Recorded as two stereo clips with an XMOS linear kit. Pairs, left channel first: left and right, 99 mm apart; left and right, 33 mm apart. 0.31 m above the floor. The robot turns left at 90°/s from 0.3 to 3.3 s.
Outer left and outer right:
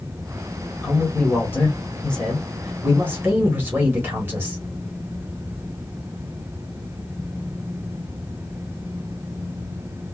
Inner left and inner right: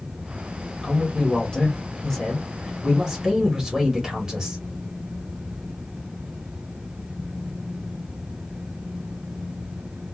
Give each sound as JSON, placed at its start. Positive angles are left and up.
{"t": 0.8, "sound": "a man speaking", "side_deg": 15, "distance_m": 1.4}